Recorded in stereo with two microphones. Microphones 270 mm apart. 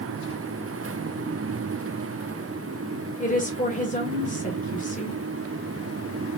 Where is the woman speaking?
30° left (ahead or behind), 1.5 m.